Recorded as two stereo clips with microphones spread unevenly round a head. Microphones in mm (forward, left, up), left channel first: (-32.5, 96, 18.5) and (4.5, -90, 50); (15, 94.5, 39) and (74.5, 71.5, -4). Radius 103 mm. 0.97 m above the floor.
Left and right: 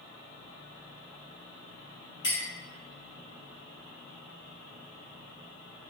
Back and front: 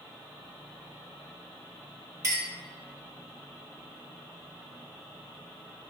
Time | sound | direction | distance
2.2 | a clink | 30° left | 1.8 m